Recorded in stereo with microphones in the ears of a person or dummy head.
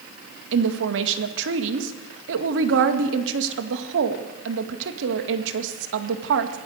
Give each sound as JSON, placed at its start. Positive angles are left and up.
{"t": 0.5, "sound": "a woman speaking", "side_deg": -70, "distance_m": 2.0}